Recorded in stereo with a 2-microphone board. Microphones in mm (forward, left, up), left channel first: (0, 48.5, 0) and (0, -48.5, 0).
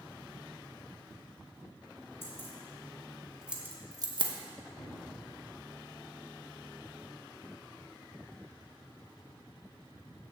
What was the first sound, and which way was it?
Keys jangling, 25° left (ahead or behind).